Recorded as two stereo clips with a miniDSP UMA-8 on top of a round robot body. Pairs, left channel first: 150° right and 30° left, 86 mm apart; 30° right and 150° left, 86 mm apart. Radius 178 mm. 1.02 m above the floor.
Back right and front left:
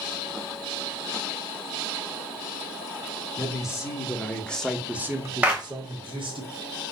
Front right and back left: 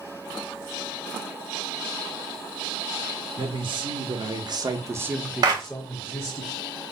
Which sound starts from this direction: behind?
A man speaking, at 3.4 s.